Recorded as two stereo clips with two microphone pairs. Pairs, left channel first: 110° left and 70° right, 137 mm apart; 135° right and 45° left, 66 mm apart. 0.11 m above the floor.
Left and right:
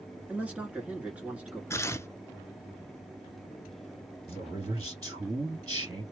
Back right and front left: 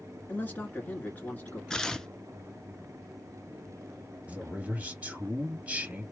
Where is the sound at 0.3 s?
140° right, 1.7 m.